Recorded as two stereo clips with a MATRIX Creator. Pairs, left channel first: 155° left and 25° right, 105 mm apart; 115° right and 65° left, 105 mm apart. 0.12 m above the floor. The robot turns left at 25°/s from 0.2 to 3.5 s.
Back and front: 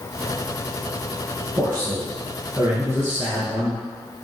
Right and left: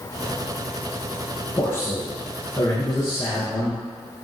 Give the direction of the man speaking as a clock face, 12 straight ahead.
2 o'clock.